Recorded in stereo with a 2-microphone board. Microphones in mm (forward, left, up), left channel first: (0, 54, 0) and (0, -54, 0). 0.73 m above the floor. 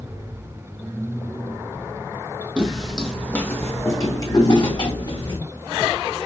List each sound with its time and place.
2.6 s footsteps: 10° right (ahead or behind), 1.0 m; by 5.4 s 45° left (ahead or behind), 2 m